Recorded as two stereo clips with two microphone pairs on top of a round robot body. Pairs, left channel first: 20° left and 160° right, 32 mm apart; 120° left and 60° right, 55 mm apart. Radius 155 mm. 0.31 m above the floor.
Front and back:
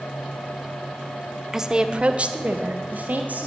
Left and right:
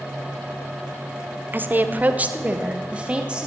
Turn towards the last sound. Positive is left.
turn(degrees=-130)